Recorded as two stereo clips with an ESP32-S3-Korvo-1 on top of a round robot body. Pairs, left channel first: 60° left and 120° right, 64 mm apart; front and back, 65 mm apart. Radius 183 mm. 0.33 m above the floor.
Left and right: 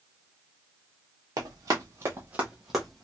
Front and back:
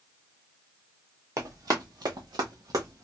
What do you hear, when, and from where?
1.4 s running footsteps: 145° right, 0.8 m; by 3.0 s 145° left, 0.8 m